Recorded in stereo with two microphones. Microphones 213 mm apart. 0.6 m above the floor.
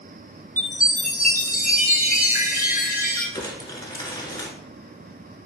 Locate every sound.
0.6 s a chime: 45° left (ahead or behind), 1.8 m
3.4 s crumpling: 20° left (ahead or behind), 1.4 m